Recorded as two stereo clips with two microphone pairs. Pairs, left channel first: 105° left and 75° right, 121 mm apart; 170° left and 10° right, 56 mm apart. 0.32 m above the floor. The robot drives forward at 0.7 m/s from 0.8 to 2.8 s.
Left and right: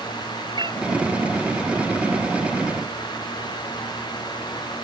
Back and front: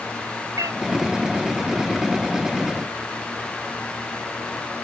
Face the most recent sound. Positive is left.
turn(degrees=-50)